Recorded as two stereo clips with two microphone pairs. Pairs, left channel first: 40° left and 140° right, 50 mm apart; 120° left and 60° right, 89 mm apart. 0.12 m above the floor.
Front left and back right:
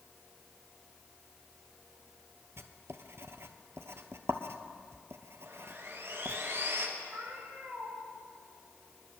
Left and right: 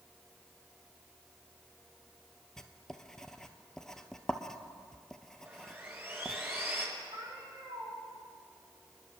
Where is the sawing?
125° right, 3 m.